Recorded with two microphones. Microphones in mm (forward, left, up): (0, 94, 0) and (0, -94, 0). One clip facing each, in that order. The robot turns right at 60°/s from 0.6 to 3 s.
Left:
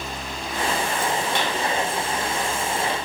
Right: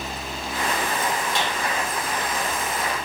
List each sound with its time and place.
1.4 s a clap: 55° left (ahead or behind), 5.5 m; by 1.6 s 45° left (ahead or behind), 5.5 m